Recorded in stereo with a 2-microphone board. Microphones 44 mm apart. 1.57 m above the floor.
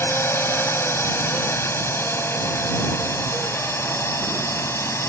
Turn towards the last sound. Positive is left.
turn(degrees=75)  # may be behind; listen again after turning